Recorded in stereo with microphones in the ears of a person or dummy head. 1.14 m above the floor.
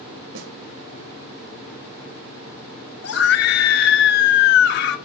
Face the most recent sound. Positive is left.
turn(degrees=60)  # may be behind; listen again after turning